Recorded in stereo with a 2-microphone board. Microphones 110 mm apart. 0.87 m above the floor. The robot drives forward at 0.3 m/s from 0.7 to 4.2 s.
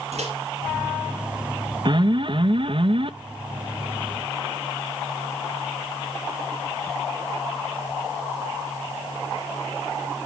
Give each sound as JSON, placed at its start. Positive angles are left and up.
{"t": 0.1, "sound": "a microwave", "side_deg": -80, "distance_m": 4.5}
{"t": 1.9, "sound": "an alarm", "side_deg": -45, "distance_m": 0.8}